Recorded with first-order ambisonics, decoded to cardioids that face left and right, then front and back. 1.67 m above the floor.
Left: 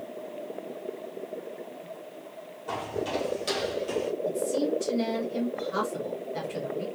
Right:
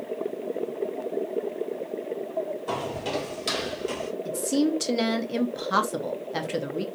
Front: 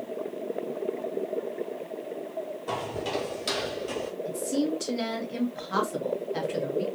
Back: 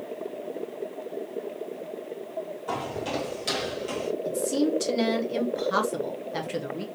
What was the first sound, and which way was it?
Footsteps, 50° right.